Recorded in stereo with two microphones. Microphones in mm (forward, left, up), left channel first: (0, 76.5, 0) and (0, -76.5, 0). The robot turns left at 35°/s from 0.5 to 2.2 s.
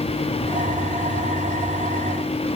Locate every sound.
Only background noise.